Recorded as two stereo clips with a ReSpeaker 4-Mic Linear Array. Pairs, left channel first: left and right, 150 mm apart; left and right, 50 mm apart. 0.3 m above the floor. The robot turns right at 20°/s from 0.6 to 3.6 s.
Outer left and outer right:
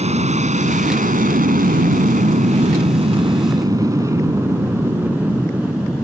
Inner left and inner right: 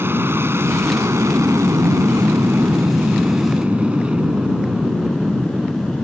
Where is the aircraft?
45° right (ahead or behind); by 6.0 s 5° right (ahead or behind).